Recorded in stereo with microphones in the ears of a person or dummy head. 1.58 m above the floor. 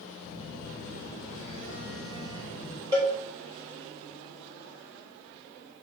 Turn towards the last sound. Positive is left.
turn(degrees=-20)  # may be behind; listen again after turning